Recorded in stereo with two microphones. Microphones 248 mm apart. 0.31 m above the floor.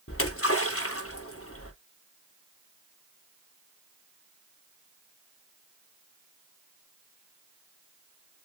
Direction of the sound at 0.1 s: 65° left (ahead or behind).